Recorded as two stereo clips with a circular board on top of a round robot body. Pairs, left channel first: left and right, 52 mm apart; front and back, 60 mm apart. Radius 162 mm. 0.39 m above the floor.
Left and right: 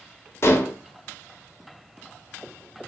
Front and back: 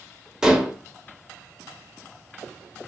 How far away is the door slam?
I don't hear a door slam.